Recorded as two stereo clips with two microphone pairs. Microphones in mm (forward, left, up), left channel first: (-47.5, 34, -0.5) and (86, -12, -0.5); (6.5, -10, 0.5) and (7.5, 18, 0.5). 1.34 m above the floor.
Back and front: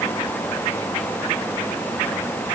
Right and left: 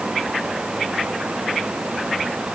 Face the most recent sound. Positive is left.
No sound to turn to.